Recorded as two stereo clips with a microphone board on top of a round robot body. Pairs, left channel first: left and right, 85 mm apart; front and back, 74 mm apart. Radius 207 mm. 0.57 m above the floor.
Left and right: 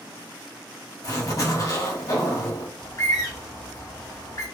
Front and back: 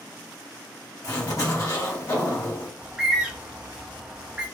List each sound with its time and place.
1.0 s a zipper: 45° left, 1.2 m
2.8 s a bird: 110° left, 1.0 m